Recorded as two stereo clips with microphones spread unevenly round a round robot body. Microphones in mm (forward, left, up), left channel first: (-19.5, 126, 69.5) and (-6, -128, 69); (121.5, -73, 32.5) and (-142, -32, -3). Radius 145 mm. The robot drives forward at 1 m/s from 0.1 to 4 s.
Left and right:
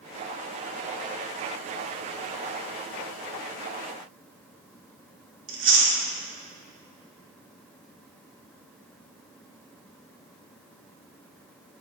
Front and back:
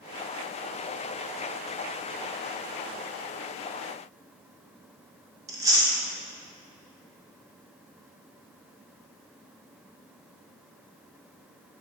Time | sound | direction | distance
5.5 | chewing | 115° right | 2.5 m